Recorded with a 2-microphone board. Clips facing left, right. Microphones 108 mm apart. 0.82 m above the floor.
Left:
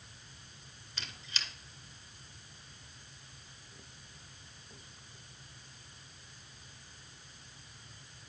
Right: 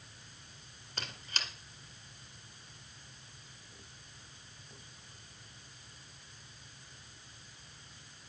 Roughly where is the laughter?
No laughter in this recording.